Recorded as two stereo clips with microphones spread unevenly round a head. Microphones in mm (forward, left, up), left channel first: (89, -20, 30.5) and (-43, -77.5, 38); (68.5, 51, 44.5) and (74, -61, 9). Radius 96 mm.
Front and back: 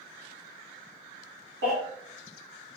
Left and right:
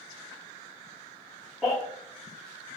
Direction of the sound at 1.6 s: 175° right.